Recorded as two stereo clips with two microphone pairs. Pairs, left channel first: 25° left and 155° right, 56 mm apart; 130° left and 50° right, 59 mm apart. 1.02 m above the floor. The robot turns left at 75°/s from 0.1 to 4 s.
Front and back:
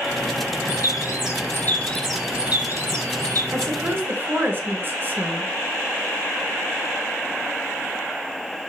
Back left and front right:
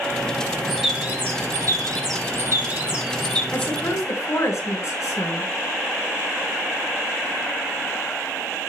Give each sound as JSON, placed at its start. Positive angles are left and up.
{"t": 0.7, "sound": "a bird", "azimuth_deg": 45, "distance_m": 5.0}
{"t": 3.5, "sound": "a woman speaking", "azimuth_deg": -170, "distance_m": 5.5}